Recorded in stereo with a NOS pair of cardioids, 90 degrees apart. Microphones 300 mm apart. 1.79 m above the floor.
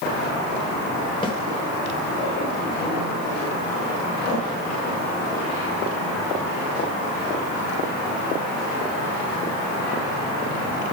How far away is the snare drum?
About 2.5 m.